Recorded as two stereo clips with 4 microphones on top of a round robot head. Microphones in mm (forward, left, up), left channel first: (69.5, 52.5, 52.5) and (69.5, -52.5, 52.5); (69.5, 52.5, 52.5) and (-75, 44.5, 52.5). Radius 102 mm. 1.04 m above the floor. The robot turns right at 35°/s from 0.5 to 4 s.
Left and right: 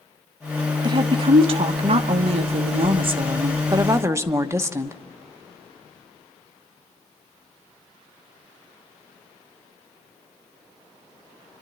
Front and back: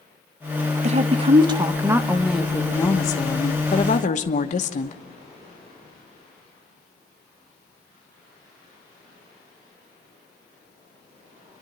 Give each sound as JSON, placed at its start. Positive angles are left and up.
{"t": 0.8, "sound": "a woman speaking", "azimuth_deg": -140, "distance_m": 1.3}